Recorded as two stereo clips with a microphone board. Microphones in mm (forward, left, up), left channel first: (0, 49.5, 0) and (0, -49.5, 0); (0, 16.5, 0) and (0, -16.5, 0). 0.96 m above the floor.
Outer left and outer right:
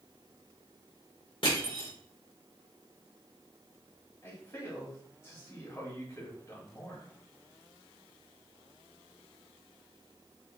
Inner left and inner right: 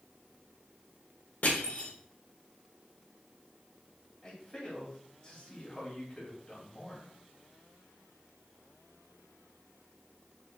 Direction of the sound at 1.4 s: 60° left (ahead or behind).